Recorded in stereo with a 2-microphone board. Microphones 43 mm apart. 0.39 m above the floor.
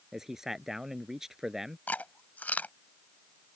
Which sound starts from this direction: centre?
A man speaking, at 0.1 s.